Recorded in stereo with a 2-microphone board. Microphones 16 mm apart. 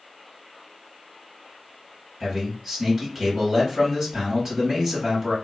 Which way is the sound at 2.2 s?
20° right (ahead or behind).